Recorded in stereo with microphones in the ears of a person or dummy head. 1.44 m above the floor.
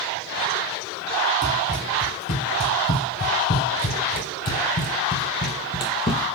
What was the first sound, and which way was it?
Running footsteps, 60° left (ahead or behind).